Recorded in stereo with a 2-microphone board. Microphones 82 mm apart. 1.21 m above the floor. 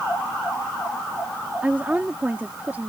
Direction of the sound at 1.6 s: 20° right (ahead or behind).